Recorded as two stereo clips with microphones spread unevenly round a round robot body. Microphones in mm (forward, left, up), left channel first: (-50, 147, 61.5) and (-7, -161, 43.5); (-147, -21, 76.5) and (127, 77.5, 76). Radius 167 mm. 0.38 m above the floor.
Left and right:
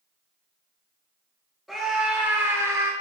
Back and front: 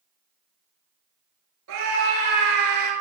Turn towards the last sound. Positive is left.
turn(degrees=0)